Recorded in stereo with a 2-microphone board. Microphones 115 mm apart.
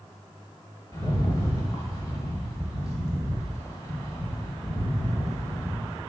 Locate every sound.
0.9 s a rattle: 30° left (ahead or behind), 1.3 m